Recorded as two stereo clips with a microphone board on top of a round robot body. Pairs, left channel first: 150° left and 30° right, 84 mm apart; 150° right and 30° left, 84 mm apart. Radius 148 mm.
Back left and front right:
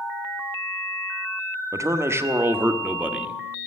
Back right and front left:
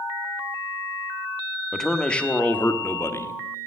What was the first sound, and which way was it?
A man speaking, 65° right.